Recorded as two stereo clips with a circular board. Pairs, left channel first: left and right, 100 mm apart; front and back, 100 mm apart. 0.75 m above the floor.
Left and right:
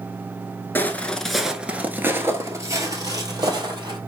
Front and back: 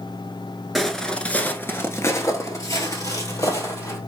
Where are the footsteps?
90° left, 0.7 m; by 4.0 s 50° right, 1.7 m.